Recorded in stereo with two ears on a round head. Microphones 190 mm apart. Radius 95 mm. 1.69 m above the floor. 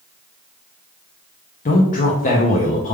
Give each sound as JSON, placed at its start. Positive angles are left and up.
{"t": 1.6, "sound": "a man speaking", "side_deg": 35, "distance_m": 0.5}